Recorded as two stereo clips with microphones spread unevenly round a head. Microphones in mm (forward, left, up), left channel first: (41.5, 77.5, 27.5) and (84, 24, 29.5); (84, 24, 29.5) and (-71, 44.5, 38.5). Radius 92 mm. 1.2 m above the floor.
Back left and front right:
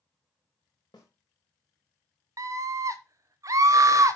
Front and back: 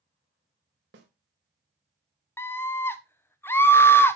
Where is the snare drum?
Straight behind, 1.8 m.